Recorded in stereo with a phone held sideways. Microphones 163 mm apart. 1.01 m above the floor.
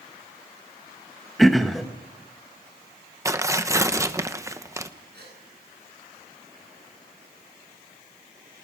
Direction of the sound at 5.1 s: 80° right.